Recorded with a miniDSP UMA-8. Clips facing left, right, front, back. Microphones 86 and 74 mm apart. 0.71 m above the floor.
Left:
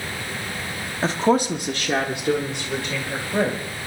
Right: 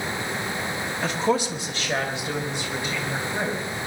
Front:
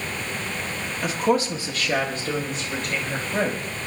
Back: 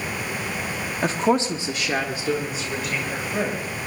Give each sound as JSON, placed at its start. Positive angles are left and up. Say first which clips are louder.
{"t": 1.0, "sound": "a woman speaking", "louder": "left 5 dB, back 1 dB", "azimuth_deg": 140, "distance_m": 1.4}